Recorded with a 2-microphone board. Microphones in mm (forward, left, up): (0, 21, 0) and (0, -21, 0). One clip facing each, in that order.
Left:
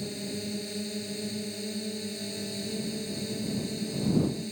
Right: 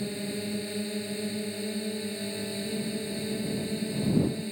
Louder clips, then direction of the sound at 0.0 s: Right 2 dB; 20° right (ahead or behind).